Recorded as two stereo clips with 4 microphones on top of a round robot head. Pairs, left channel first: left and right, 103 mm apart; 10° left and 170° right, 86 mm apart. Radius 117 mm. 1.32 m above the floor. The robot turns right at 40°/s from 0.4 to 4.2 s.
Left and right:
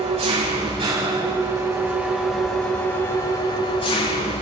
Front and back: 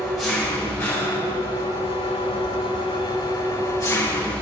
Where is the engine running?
80° right, 9.5 m; by 4.4 s 70° left, 9.5 m.